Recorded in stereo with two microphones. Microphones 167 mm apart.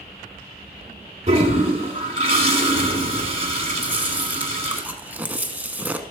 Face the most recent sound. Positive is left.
turn(degrees=-10)  # may be behind; listen again after turning